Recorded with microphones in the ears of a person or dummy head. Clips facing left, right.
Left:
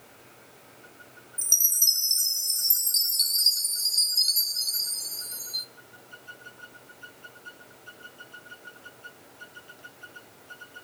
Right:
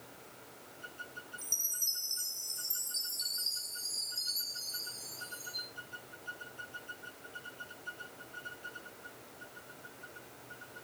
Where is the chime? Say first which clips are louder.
Left 2 dB; 55° left (ahead or behind), 0.6 m.